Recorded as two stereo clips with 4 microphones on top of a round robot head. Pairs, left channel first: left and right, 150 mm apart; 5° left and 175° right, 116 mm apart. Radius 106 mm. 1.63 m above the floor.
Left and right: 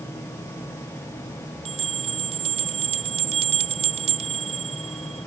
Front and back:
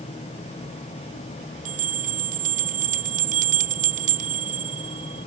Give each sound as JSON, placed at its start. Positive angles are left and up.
{"t": 1.6, "sound": "a bell", "azimuth_deg": -150}